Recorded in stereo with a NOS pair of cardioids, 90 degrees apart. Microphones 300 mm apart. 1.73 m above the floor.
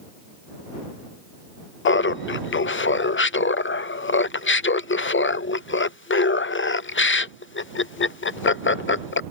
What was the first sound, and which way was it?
Laughter, 40° left.